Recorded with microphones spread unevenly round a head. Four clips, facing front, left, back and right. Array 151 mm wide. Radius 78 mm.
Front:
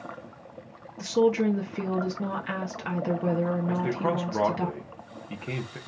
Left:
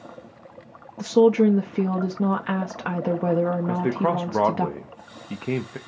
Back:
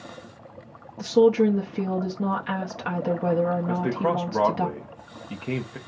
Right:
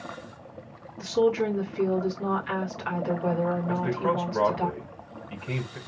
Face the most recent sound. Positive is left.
turn(degrees=95)